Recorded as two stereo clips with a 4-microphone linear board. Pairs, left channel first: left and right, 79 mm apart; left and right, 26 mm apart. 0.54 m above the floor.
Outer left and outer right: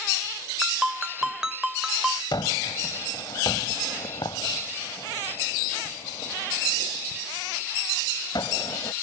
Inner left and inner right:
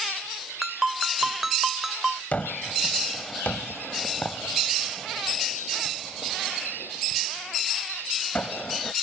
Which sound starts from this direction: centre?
A ringtone, at 0.6 s.